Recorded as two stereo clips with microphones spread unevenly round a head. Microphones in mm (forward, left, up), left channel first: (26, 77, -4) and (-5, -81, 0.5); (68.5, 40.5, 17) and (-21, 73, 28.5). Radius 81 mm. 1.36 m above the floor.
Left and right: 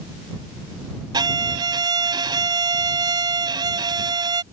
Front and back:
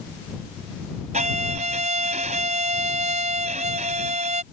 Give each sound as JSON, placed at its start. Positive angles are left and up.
{"t": 1.1, "sound": "a violin", "azimuth_deg": -165}